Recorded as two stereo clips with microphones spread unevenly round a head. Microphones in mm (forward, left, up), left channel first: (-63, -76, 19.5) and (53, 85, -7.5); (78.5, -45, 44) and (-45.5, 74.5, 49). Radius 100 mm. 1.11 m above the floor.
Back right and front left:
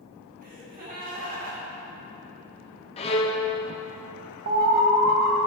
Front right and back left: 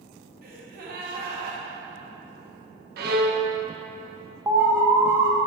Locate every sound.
0.4 s a gasp: 100° left, 1.7 m
3.0 s a violin: 170° left, 0.9 m
4.5 s an alarm: 60° left, 1.1 m